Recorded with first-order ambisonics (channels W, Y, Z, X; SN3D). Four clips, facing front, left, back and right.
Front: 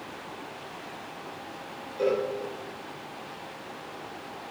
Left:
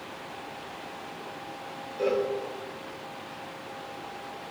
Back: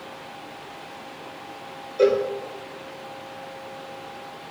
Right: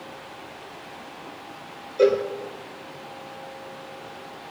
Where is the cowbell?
130° right, 3.5 m.